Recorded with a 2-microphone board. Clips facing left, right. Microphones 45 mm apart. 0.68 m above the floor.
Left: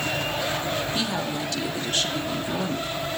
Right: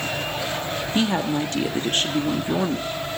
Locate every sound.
0.9 s a woman speaking: 35° right (ahead or behind), 0.9 m